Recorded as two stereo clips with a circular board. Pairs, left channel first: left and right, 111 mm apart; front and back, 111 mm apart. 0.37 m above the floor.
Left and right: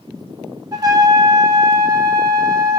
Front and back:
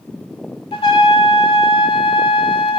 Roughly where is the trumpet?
Ahead right.